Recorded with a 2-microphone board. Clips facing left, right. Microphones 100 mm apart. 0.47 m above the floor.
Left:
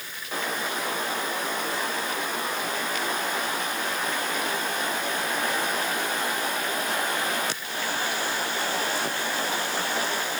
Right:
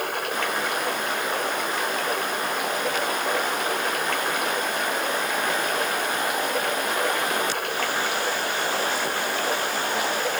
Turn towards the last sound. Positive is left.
turn(degrees=-65)  # may be behind; listen again after turning